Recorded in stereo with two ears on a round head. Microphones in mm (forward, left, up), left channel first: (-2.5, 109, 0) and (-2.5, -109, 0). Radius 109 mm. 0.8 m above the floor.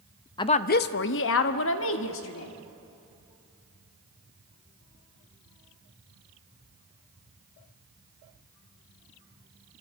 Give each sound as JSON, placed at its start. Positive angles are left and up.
{"t": 0.4, "sound": "a woman speaking", "side_deg": 15, "distance_m": 0.5}